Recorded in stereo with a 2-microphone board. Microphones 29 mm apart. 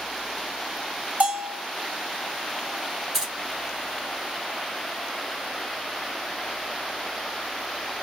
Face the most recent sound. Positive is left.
turn(degrees=-20)  # may be behind; listen again after turning